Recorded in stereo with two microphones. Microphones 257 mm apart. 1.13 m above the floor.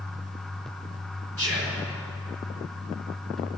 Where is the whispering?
65° right (ahead or behind), 4 m.